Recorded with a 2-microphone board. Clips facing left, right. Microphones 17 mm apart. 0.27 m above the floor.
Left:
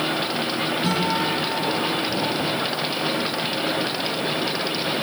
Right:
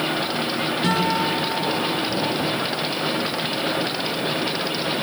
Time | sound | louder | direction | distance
0.8 | a guitar | right 3 dB | 70° right (ahead or behind) | 4.5 m